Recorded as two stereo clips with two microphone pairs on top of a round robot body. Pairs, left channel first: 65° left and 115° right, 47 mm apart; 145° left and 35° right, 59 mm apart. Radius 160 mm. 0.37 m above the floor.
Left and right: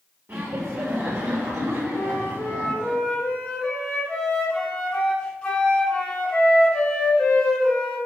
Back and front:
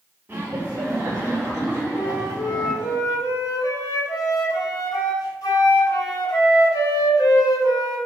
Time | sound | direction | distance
0.3 | laughter | 90° right | 1.9 m
1.9 | a flute | 145° left | 2.5 m